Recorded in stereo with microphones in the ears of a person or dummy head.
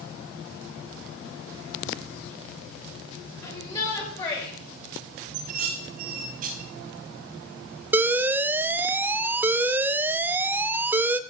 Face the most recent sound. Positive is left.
turn(degrees=-15)  # may be behind; listen again after turning